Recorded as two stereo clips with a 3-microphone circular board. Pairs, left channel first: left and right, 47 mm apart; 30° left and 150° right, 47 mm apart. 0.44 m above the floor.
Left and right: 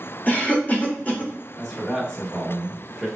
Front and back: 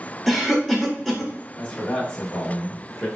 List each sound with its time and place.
0.3 s a cough: 125° left, 1.1 m
1.6 s a man speaking: 15° left, 0.8 m